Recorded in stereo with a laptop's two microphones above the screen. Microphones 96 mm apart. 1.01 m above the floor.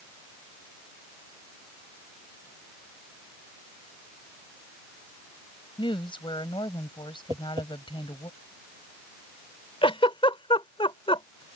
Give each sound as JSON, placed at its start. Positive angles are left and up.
{"t": 5.8, "sound": "a woman speaking", "side_deg": 65}
{"t": 7.3, "sound": "tapping", "side_deg": -55}
{"t": 9.8, "sound": "a giggle", "side_deg": 80}